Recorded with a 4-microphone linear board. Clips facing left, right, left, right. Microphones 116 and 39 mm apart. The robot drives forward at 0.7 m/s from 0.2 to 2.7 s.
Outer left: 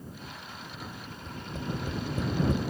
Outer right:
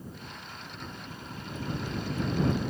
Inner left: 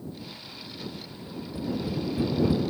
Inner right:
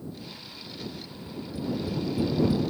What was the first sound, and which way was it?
Tapping, 30° left (ahead or behind).